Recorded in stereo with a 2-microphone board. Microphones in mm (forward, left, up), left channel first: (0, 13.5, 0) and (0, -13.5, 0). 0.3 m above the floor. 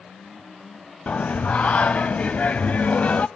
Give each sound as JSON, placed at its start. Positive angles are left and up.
{"t": 1.1, "sound": "singing", "side_deg": 55, "distance_m": 0.5}